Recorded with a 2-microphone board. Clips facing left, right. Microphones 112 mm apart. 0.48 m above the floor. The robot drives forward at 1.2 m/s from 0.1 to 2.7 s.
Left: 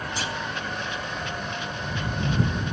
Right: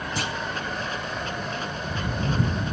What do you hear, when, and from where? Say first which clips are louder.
0.2 s a clunk: right 2 dB; 50° right (ahead or behind), 0.7 m; by 0.3 s 70° right (ahead or behind), 0.6 m